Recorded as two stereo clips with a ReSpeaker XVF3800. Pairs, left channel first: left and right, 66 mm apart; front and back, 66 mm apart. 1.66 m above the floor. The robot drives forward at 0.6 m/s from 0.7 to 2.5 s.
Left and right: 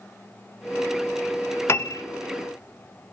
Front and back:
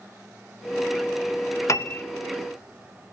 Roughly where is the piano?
Ahead left.